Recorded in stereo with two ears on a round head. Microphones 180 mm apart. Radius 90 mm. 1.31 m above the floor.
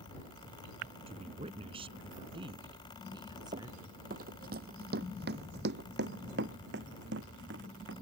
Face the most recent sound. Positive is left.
turn(degrees=-60)  # may be behind; listen again after turning